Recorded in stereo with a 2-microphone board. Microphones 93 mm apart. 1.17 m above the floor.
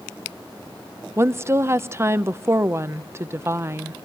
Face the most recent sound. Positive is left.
turn(degrees=-30)  # may be behind; listen again after turning